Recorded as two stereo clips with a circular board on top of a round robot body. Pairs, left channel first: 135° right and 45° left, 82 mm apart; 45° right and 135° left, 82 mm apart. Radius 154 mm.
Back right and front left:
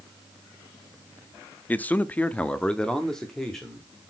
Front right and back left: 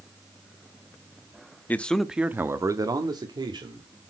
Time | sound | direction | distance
1.7 | a man speaking | 90° right | 0.8 m